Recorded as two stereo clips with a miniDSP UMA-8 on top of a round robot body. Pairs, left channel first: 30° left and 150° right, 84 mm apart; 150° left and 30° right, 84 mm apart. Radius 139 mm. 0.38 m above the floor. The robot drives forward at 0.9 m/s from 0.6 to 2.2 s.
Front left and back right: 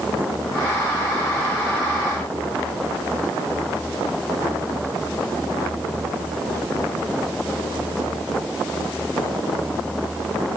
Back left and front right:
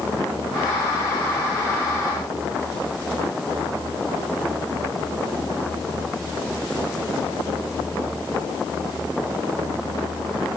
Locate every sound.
Only background noise.